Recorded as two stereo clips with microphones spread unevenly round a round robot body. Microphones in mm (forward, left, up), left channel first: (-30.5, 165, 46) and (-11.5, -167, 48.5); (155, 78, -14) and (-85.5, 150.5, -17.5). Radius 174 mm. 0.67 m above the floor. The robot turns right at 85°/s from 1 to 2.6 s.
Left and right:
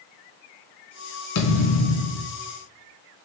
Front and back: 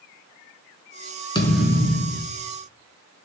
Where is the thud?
55° left, 2 m; by 2.3 s 135° left, 2 m.